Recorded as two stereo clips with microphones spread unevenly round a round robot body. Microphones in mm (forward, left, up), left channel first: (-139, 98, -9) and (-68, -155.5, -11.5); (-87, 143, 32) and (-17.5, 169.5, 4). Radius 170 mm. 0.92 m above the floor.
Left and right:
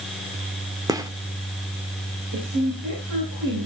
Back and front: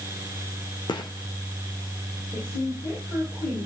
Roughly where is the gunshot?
Behind right.